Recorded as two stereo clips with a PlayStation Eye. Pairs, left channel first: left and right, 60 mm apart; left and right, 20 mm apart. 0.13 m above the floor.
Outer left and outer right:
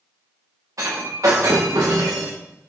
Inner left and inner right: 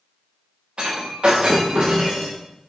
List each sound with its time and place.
0.8 s breaking glass: 60° right (ahead or behind), 5 m